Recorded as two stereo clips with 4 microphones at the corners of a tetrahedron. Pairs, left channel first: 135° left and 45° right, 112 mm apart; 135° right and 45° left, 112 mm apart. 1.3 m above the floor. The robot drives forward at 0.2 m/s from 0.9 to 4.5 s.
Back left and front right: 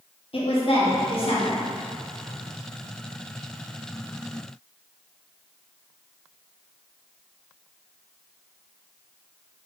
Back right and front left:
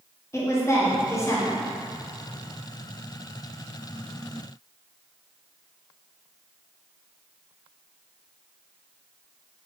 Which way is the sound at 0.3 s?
160° left.